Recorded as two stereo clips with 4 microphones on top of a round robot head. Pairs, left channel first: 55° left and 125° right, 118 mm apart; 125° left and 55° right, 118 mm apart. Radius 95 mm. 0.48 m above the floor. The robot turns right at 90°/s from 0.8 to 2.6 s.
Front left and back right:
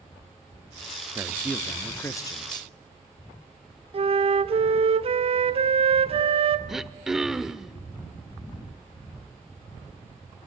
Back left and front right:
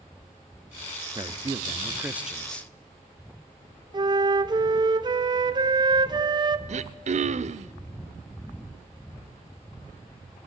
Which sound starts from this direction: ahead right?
Throat clearing, at 6.7 s.